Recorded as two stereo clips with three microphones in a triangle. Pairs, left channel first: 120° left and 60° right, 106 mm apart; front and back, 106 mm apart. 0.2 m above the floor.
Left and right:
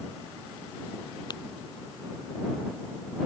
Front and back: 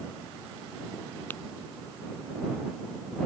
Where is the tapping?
70° left.